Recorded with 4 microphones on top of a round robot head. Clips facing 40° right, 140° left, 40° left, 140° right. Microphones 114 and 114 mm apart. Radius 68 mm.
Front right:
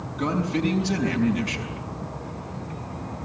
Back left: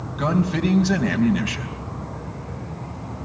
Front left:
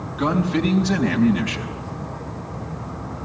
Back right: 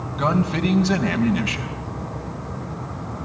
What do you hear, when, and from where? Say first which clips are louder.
0.2 s a man speaking: back left 3 dB, front left 1 dB; 160° left, 5 m